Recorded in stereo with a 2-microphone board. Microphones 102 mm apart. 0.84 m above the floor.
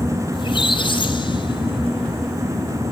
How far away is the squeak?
About 1.7 m.